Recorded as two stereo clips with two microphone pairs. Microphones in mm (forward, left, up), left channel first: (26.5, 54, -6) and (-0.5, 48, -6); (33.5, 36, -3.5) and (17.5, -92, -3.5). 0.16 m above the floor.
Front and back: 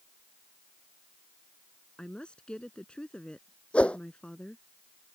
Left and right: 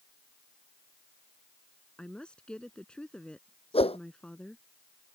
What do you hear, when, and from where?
2.0 s a woman speaking: straight ahead
3.7 s a whoosh: 45° left